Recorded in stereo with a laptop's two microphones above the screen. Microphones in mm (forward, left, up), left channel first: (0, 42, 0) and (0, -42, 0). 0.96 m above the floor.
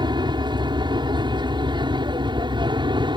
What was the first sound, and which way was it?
An aircraft, 60° right (ahead or behind).